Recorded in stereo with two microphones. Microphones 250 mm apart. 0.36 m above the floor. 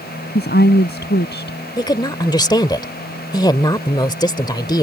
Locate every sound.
0.3 s a woman speaking: 50° left (ahead or behind)
1.8 s a woman speaking: 20° left (ahead or behind)